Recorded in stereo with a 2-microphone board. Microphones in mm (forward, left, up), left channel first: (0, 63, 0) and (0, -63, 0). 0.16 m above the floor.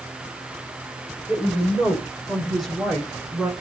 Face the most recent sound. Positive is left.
turn(degrees=0)  # may be behind; listen again after turning